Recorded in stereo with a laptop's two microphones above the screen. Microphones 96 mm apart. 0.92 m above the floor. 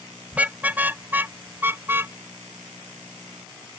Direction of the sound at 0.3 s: 15° right (ahead or behind).